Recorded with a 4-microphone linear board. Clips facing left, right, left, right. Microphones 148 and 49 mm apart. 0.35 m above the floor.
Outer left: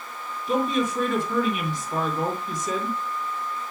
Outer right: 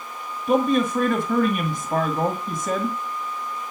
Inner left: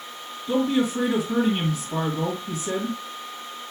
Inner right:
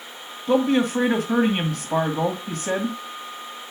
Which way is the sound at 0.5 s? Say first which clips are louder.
Outer right 4 dB, inner right 3 dB; 65° right (ahead or behind).